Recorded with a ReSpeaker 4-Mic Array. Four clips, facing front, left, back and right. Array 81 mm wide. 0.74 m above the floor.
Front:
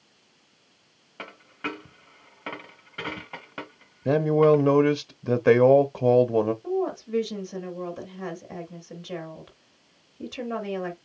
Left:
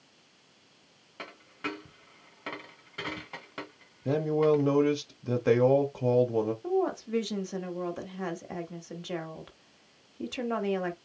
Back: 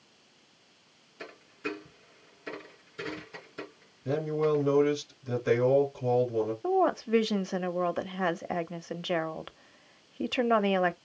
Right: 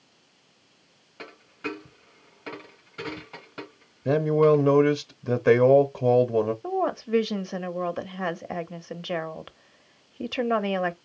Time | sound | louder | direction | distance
1.2 | a dropped coin | right 2 dB, front 3 dB | 15° left | 2.5 m
4.0 | a man speaking | right 5 dB, front 9 dB | 20° right | 0.7 m
6.6 | a woman speaking | right 2 dB, back 2 dB | 150° right | 0.9 m